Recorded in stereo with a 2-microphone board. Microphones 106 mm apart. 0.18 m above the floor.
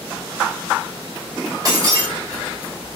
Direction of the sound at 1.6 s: 35° right (ahead or behind).